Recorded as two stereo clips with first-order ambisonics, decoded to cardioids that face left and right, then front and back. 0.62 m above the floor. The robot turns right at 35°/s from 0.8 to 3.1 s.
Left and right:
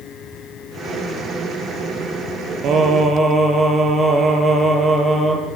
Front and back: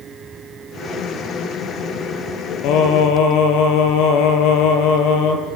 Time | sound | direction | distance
2.6 | singing | 35° right | 3.5 m